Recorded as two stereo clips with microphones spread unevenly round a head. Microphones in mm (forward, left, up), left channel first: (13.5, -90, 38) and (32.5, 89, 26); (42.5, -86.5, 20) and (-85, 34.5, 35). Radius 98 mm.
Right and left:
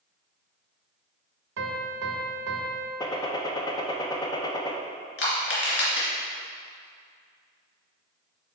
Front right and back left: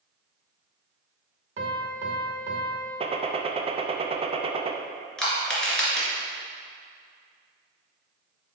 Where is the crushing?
130° right, 2.5 m.